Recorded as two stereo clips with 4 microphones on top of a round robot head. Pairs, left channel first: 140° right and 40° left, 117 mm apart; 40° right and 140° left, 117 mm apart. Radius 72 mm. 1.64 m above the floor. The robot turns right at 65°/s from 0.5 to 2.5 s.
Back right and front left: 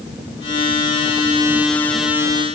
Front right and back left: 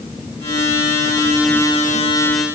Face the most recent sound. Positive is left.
No sound to turn to.